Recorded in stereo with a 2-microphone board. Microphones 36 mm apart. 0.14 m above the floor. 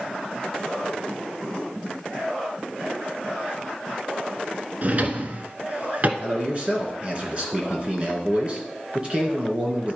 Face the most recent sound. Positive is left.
turn(degrees=-30)  # may be behind; listen again after turning